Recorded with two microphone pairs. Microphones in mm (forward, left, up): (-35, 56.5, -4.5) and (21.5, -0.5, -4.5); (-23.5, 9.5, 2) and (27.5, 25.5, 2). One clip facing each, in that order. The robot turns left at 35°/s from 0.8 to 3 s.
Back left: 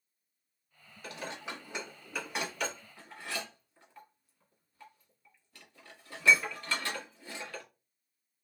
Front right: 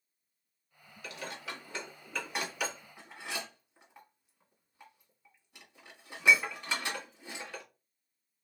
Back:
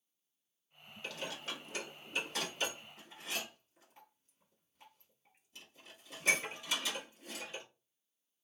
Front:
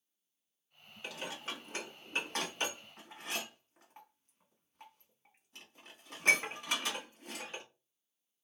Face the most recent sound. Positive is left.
turn(degrees=25)